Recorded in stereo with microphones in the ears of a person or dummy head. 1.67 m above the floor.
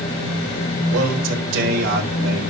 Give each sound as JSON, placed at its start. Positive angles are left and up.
{"t": 0.9, "sound": "a man speaking", "side_deg": -75, "distance_m": 5.5}